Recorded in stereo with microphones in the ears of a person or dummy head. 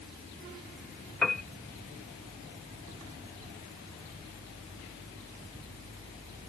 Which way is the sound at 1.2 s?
5° left (ahead or behind).